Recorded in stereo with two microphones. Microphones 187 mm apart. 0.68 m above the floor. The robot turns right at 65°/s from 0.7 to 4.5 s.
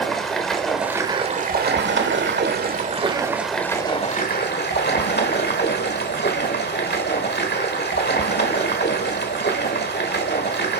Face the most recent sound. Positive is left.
turn(degrees=65)